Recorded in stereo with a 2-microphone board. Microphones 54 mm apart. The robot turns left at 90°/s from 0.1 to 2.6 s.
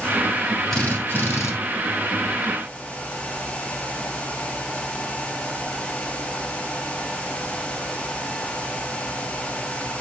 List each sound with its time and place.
0.7 s a drill: 165° left, 2 m; by 1.5 s 90° left, 2 m